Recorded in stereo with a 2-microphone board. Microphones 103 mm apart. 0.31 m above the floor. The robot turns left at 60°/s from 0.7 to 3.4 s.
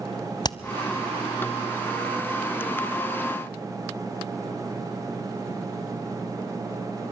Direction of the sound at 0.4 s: 40° left (ahead or behind).